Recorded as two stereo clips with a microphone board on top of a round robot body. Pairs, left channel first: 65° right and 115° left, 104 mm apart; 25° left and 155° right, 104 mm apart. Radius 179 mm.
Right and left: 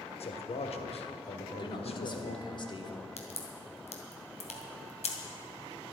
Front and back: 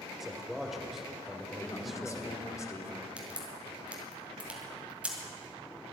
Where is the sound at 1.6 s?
35° right, 2 m.